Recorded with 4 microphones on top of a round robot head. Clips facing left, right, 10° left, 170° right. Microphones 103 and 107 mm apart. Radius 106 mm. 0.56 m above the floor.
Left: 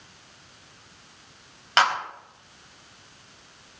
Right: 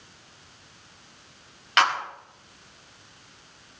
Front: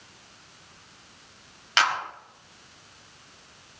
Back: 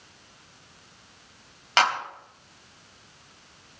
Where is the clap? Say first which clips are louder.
Left 1 dB, back 2 dB; 150° left, 4 m.